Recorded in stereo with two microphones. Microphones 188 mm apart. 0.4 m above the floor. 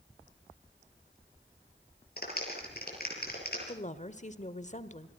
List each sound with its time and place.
2.2 s a clap: 55° left (ahead or behind), 7 m
3.7 s a woman speaking: 40° left (ahead or behind), 1.2 m